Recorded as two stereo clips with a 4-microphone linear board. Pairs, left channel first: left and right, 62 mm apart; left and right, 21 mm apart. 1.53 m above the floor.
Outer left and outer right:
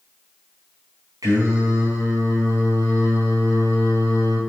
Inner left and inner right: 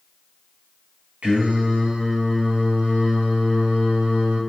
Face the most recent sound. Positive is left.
turn(degrees=-75)  # may be behind; listen again after turning